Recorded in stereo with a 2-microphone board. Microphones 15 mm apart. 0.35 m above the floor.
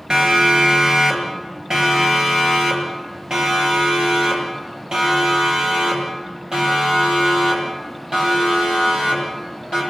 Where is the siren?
75° right (ahead or behind), 7.5 m; by 9.8 s 85° right, 15.5 m.